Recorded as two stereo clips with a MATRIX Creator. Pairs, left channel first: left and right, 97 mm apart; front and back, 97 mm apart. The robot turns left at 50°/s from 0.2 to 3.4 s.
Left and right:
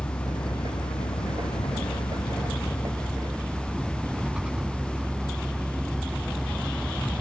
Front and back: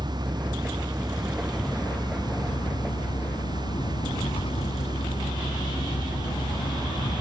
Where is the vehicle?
150° left; by 7.2 s 10° right.